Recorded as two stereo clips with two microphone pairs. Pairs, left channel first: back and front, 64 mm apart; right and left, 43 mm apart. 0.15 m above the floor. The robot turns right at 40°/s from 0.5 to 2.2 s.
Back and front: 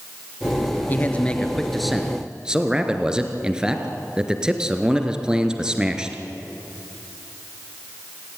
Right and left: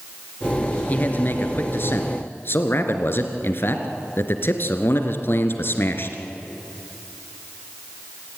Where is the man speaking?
130° right, 2.5 m; by 6.2 s 80° right, 2.5 m.